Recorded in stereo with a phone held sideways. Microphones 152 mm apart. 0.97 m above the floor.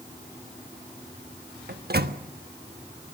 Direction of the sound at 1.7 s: 75° right (ahead or behind).